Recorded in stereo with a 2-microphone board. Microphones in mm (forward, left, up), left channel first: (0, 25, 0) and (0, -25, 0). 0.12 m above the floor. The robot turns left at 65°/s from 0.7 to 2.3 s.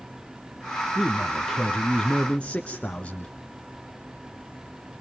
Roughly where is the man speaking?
Centre.